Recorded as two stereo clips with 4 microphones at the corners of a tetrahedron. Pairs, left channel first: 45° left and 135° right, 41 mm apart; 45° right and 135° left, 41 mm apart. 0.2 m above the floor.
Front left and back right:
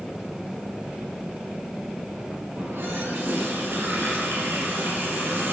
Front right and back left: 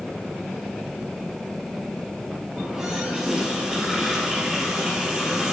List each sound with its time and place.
2.6 s a running tap: 140° right, 3 m